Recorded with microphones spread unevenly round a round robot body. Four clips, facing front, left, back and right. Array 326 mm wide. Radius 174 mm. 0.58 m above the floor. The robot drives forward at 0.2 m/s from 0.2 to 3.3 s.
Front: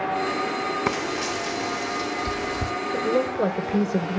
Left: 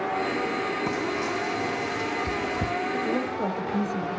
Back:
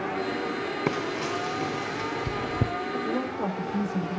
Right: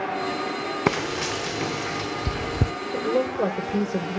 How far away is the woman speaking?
About 3 m.